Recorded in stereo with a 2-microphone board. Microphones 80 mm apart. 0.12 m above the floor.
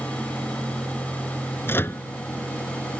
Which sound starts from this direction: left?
A microwave, at 1.7 s.